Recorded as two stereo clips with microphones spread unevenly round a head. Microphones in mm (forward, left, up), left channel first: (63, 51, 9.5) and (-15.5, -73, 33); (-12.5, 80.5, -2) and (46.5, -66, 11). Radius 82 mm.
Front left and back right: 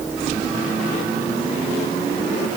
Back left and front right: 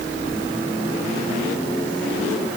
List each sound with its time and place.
Only background noise.